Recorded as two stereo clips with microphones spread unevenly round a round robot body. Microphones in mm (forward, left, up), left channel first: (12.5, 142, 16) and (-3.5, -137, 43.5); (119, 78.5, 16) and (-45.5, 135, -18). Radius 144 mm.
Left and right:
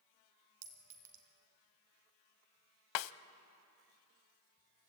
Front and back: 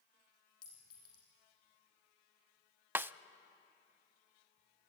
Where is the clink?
80° right, 2.5 m.